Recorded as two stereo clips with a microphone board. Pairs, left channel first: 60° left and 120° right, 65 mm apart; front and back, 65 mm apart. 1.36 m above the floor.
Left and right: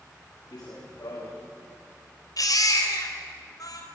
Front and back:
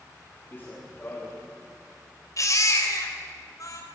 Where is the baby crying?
35° left, 3.5 m.